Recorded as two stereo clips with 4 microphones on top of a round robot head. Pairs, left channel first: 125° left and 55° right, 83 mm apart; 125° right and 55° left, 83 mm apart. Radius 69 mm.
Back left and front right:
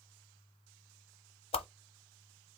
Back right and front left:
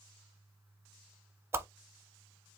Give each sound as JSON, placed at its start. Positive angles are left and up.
{"t": 1.5, "sound": "a whoosh", "azimuth_deg": 120, "distance_m": 0.5}